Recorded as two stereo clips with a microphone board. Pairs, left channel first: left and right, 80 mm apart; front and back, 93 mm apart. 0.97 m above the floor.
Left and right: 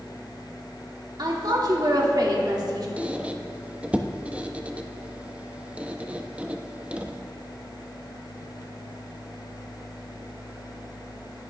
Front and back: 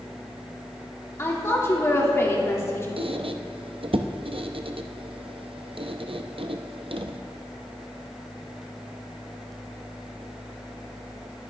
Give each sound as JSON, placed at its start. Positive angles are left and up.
{"t": 1.2, "sound": "a woman speaking", "azimuth_deg": -60, "distance_m": 2.5}
{"t": 3.0, "sound": "a squeak", "azimuth_deg": -165, "distance_m": 0.6}